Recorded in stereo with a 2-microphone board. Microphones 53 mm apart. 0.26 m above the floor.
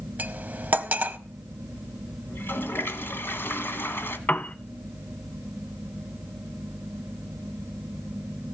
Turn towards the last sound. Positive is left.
turn(degrees=30)  # may be behind; listen again after turning